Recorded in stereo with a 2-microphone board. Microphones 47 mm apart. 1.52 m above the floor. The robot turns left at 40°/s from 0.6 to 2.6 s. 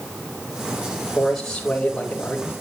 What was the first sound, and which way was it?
A man speaking, straight behind.